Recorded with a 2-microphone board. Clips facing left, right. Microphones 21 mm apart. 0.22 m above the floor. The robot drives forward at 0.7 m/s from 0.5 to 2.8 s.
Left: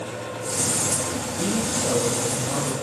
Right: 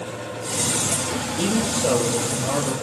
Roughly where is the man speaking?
Right.